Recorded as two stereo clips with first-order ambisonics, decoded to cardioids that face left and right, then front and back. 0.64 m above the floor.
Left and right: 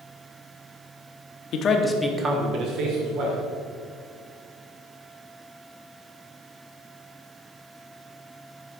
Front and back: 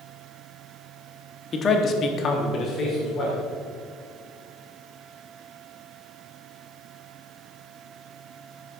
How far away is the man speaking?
About 1.1 m.